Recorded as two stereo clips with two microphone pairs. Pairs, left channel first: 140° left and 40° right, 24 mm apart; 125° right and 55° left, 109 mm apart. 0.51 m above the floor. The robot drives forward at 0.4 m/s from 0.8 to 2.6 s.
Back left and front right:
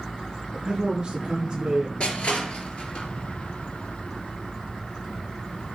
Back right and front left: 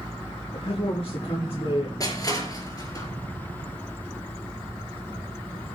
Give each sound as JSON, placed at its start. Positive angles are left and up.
{"t": 0.5, "sound": "a man speaking", "azimuth_deg": -100, "distance_m": 7.0}
{"t": 2.0, "sound": "crushing", "azimuth_deg": 180, "distance_m": 4.5}